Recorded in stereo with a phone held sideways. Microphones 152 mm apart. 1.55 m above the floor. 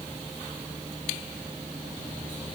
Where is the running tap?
No running tap in this recording.